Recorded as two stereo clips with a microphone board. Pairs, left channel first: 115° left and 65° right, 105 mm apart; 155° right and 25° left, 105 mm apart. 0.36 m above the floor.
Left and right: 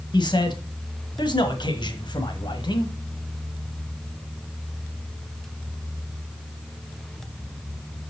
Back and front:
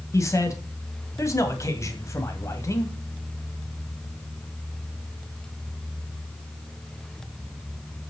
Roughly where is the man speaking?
Behind left.